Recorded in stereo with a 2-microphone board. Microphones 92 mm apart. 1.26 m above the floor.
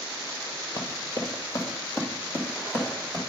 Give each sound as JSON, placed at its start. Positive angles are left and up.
{"t": 0.8, "sound": "running footsteps", "side_deg": 50, "distance_m": 1.8}